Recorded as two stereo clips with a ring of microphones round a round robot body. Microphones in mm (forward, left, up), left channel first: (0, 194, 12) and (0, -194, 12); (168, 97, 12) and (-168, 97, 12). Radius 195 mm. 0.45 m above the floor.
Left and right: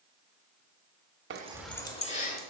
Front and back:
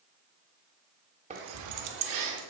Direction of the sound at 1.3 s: 120° right.